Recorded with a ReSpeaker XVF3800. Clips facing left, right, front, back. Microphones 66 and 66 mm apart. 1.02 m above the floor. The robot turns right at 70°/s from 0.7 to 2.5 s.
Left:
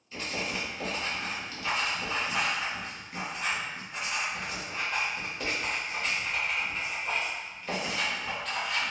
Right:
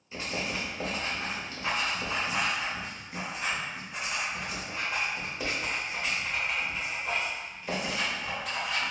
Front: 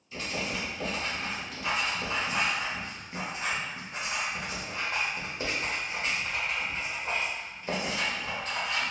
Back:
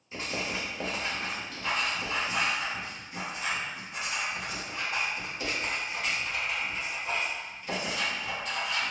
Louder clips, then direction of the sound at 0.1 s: Even, even; 140° right.